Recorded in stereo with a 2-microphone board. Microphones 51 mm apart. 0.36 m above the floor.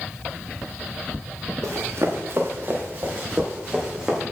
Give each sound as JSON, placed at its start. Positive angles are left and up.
{"t": 1.6, "sound": "running footsteps", "side_deg": -70, "distance_m": 2.5}